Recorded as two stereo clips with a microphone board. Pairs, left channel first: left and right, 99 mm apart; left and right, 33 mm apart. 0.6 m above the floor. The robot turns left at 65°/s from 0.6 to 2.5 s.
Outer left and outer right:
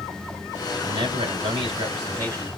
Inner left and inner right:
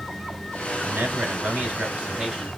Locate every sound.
0.8 s a man speaking: 55° right, 3.5 m; by 2.5 s 160° right, 3.5 m